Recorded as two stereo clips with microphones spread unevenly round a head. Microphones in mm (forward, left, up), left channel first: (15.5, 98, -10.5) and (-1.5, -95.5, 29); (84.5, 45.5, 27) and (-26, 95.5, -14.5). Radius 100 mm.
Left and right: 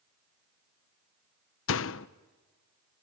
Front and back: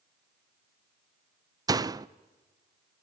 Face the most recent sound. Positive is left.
turn(degrees=85)